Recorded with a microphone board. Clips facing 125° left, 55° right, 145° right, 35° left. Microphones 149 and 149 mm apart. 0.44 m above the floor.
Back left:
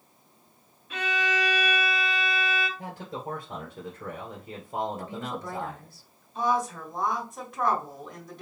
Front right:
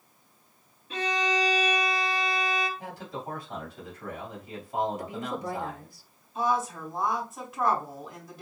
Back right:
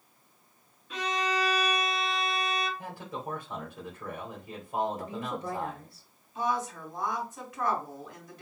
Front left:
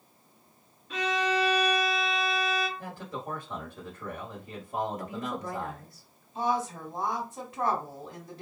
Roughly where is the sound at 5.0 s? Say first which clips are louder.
Front right 1 dB, even; behind right.